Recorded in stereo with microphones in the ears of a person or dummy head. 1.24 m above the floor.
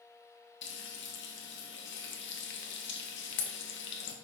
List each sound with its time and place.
0.6 s frying: 60° left (ahead or behind), 1.2 m